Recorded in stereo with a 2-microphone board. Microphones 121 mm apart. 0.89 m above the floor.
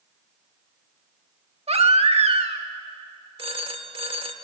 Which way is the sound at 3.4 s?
50° right (ahead or behind).